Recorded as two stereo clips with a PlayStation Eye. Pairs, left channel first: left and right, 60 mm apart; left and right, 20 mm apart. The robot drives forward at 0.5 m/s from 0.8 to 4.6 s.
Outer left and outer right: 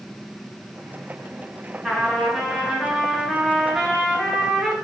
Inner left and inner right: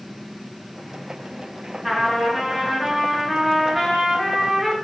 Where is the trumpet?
10° right (ahead or behind), 3.5 m; by 4.8 s 15° right (ahead or behind), 2.5 m.